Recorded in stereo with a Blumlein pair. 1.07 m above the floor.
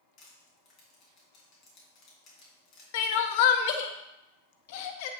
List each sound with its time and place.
0.2 s crushing: 35° left, 3 m
2.9 s crying: 50° left, 0.7 m